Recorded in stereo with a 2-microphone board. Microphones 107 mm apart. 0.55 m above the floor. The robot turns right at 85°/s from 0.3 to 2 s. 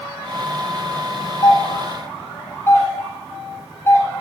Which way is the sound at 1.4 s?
45° left (ahead or behind).